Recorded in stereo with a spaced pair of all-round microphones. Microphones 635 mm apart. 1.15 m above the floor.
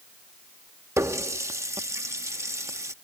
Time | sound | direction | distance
1.0 | a running tap | 5° right (ahead or behind) | ?